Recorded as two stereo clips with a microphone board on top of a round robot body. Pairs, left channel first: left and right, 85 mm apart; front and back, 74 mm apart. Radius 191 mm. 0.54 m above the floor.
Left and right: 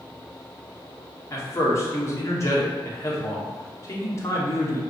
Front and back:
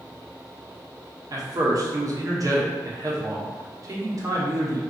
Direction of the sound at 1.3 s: 145° left.